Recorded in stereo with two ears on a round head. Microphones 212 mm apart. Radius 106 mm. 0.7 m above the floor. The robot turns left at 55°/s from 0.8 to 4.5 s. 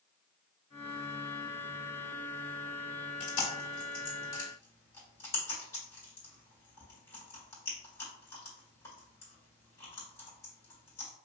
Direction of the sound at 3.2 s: 65° left (ahead or behind).